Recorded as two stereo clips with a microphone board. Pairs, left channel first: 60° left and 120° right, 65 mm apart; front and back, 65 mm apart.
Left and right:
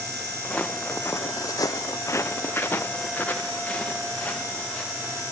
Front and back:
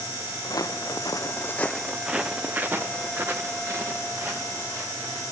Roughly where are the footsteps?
Ahead.